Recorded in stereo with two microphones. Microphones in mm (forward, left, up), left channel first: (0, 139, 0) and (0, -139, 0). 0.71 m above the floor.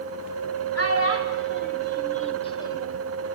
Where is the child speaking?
60° left (ahead or behind), 1.9 m; by 3.0 s 5° left (ahead or behind), 1.9 m.